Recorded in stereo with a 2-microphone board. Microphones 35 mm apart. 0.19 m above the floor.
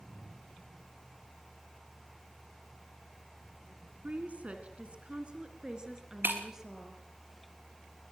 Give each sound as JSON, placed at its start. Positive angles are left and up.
{"t": 4.0, "sound": "a woman speaking", "side_deg": -45, "distance_m": 2.0}
{"t": 6.2, "sound": "breaking glass", "side_deg": -75, "distance_m": 3.5}